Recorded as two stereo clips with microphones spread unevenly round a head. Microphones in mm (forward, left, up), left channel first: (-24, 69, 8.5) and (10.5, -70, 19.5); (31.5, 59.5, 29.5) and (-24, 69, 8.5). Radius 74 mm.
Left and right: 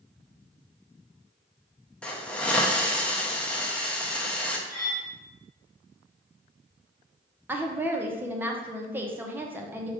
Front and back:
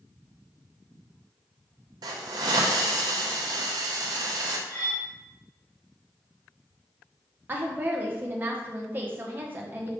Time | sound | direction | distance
2.0 | a hiss | 170° right | 0.6 m
4.7 | cutlery clinking | 10° right | 2 m
7.5 | a woman speaking | 155° right | 0.7 m